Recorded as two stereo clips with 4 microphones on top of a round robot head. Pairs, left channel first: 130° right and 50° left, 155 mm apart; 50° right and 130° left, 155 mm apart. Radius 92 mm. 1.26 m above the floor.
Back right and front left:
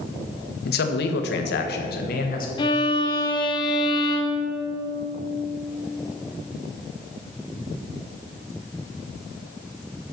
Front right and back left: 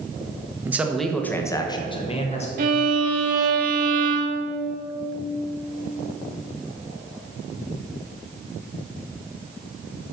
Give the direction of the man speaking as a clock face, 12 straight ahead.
5 o'clock.